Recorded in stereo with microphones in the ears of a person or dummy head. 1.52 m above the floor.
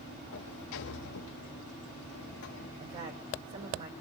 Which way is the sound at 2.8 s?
40° right (ahead or behind).